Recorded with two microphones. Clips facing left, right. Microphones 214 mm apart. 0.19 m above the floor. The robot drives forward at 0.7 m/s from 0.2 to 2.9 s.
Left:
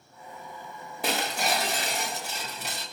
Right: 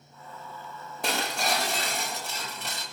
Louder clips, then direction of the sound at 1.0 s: Left 1 dB; centre (ahead or behind).